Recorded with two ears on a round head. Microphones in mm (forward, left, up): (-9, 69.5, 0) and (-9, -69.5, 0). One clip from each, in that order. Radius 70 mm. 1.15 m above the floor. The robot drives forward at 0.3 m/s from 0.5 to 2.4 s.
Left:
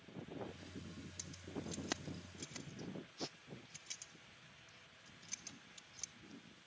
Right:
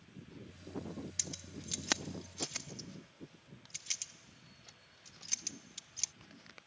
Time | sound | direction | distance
1.2 | keys jangling | 60° right (ahead or behind) | ?